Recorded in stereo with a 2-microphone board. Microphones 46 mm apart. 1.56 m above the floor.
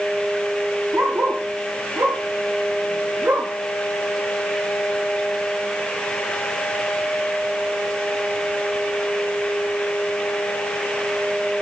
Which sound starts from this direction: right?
A dog barking, at 0.9 s.